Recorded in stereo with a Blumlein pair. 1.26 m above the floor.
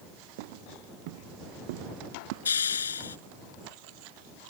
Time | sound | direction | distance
0.4 | footsteps | 50° right | ?
2.5 | a hiss | 70° left | ?